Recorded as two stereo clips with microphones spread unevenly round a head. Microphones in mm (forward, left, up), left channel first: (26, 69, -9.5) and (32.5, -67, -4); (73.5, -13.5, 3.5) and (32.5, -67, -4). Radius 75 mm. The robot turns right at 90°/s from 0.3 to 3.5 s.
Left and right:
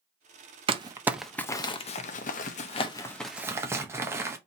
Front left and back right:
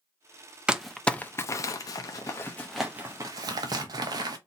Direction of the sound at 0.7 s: 50° right.